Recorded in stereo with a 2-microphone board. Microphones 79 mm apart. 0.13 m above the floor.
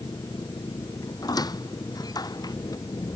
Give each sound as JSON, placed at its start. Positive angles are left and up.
{"t": 0.0, "sound": "an engine running", "side_deg": 50}
{"t": 1.2, "sound": "a squeak", "side_deg": 55}